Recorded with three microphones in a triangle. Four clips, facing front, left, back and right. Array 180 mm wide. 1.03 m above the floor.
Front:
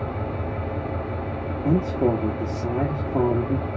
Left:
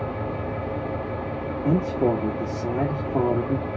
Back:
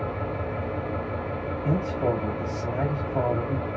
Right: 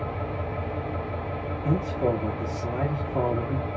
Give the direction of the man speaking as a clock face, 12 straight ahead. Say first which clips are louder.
Left 4 dB, front 5 dB; 11 o'clock.